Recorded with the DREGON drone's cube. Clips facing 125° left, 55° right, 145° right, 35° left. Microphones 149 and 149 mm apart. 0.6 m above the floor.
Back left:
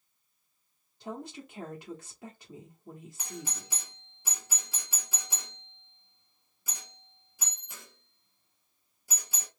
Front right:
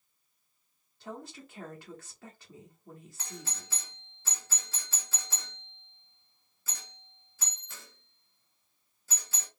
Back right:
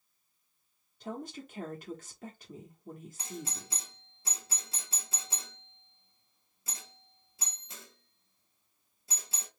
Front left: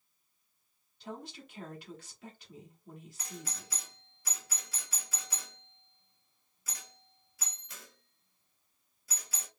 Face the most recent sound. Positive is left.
turn(degrees=-175)